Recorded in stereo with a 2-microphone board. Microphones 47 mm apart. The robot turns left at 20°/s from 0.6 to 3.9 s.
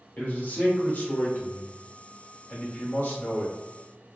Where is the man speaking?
130° left, 1.2 m; by 3.5 s 70° left, 1.2 m.